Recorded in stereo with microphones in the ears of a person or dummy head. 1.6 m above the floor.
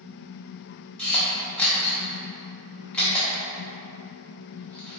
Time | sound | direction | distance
1.0 | a camera shutter | centre (ahead or behind) | 0.9 m